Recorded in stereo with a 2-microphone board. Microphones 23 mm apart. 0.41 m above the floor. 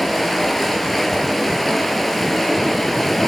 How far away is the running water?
About 3.5 m.